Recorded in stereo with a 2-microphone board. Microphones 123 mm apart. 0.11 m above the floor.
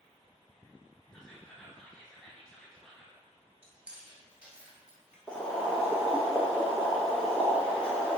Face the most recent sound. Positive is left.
turn(degrees=5)  # may be behind; listen again after turning